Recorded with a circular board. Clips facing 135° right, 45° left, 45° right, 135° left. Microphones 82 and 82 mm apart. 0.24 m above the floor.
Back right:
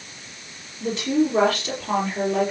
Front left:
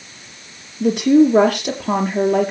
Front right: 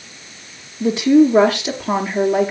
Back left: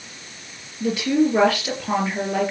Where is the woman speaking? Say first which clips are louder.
Front left 9 dB, front right 7 dB; 20° left, 4 m.